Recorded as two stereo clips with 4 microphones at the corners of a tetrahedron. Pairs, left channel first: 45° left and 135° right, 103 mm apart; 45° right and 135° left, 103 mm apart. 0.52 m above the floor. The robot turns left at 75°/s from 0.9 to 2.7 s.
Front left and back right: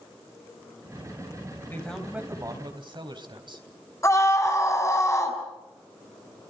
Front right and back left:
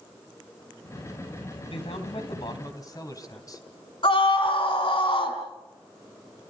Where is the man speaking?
20° right, 3 m; by 3.9 s 100° right, 3 m.